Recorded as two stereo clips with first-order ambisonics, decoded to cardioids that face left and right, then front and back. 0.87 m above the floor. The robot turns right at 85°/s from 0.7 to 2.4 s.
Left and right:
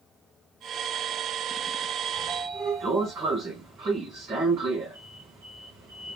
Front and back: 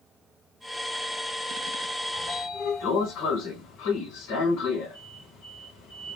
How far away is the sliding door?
About 1.7 m.